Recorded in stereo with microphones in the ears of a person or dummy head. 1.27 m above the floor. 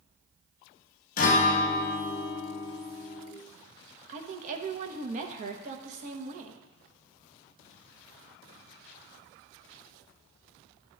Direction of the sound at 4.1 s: 50° right (ahead or behind).